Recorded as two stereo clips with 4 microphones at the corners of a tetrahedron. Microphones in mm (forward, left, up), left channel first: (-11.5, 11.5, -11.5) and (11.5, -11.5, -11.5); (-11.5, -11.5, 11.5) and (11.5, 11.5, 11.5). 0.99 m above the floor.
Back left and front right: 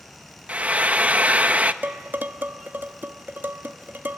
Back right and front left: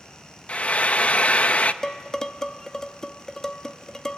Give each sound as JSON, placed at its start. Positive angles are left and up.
{"t": 0.5, "sound": "frying", "azimuth_deg": -85, "distance_m": 0.7}
{"t": 1.8, "sound": "dishes clattering", "azimuth_deg": -60, "distance_m": 0.9}